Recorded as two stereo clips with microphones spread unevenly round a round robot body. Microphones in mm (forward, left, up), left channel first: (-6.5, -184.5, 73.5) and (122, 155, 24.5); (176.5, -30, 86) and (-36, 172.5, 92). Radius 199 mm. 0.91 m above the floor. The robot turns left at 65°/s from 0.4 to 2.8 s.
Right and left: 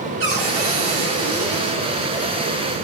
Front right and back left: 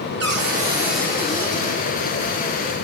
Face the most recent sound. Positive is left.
turn(degrees=-75)